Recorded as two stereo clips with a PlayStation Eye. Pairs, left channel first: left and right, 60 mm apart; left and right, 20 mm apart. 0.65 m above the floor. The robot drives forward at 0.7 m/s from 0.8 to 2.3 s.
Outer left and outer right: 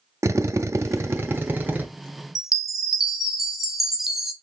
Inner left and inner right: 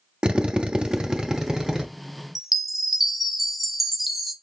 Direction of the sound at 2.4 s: 5° right (ahead or behind).